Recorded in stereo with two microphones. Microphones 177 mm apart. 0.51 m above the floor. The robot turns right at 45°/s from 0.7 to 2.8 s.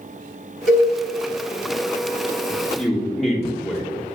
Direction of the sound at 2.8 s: Centre (ahead or behind).